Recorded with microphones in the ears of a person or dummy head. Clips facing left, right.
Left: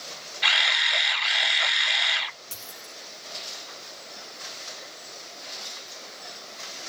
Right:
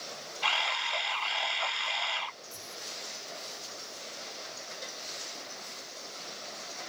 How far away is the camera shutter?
About 0.6 m.